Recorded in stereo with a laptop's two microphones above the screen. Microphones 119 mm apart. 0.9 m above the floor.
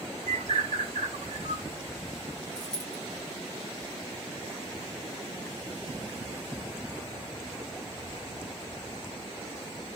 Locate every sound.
0.3 s a bird: 85° right, 0.6 m
2.5 s a dropped coin: 5° left (ahead or behind), 1.6 m